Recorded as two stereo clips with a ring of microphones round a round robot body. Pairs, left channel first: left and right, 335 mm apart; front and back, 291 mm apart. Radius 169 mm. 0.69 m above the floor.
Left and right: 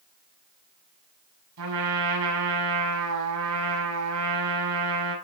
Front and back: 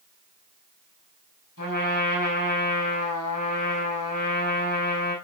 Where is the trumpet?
50° right, 5 m.